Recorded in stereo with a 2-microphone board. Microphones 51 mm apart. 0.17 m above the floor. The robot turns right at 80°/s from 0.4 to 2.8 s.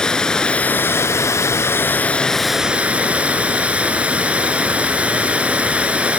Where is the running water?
15° left, 0.8 m; by 6.2 s 155° right, 0.8 m.